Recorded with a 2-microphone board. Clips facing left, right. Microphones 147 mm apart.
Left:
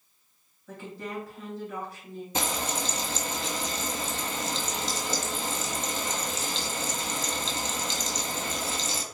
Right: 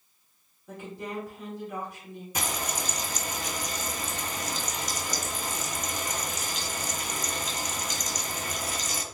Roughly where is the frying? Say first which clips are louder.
Left 2 dB; left.